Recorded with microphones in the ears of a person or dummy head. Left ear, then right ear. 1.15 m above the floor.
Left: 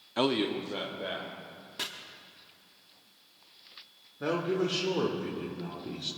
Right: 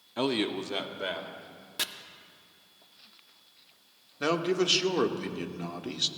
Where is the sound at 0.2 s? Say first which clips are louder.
Left 1 dB; 15° left (ahead or behind), 0.6 m; by 1.3 s 60° right (ahead or behind), 1.7 m.